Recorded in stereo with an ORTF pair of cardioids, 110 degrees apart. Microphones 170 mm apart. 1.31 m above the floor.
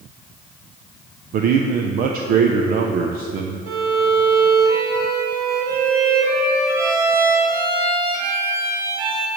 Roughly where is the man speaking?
Ahead right.